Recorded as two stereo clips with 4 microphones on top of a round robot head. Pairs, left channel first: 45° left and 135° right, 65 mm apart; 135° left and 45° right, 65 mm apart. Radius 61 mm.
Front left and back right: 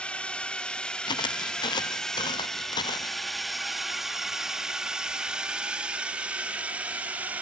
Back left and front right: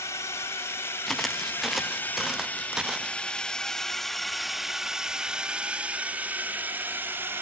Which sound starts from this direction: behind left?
A drone, at 0.0 s.